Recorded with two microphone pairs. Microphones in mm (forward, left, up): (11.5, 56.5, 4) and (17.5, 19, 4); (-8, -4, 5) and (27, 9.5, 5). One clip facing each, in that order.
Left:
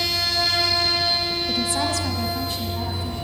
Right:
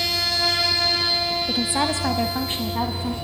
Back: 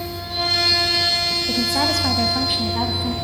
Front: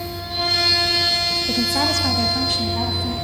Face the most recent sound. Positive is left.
turn(degrees=-100)